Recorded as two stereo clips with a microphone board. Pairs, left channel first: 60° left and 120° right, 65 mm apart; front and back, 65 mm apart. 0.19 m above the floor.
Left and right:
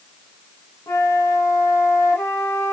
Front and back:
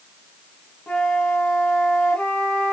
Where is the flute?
70° left, 1.6 m.